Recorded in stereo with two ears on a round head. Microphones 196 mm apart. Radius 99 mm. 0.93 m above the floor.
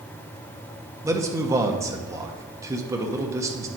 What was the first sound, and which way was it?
A man speaking, 15° right (ahead or behind).